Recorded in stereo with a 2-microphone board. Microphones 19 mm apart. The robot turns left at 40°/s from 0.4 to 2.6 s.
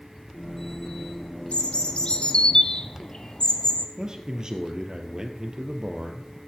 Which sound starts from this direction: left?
A bird, at 1.5 s.